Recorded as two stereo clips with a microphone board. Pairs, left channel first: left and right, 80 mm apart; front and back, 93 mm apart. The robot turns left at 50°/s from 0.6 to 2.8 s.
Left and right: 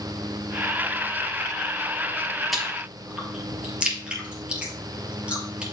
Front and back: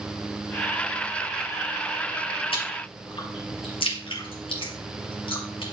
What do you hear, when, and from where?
2.5 s chewing: straight ahead, 2.5 m; by 5.6 s 15° right, 2.5 m